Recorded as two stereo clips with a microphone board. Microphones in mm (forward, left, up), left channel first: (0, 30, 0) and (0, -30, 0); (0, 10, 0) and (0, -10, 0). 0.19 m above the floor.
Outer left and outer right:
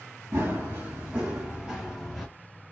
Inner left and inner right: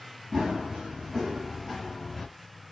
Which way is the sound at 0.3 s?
35° right (ahead or behind).